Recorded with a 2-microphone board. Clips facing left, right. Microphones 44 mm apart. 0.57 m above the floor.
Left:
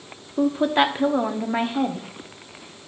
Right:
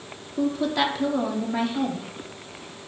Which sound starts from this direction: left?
A woman speaking, at 0.4 s.